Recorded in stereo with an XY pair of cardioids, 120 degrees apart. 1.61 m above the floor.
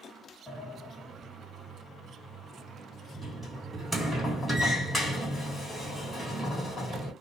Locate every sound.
0.5 s a sliding door: 10° left, 2 m